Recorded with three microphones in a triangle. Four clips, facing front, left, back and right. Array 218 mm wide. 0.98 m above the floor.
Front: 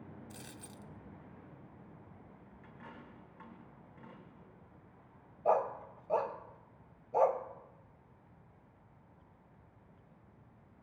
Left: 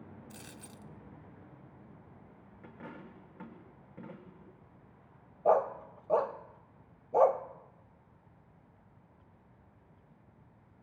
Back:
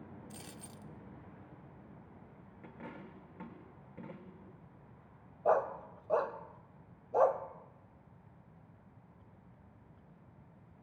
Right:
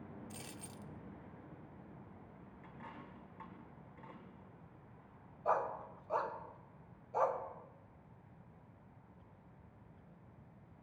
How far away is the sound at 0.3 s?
About 0.6 m.